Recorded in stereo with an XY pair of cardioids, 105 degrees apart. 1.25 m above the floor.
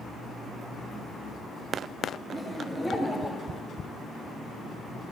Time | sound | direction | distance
2.3 | laughter | 25° right | 2.5 m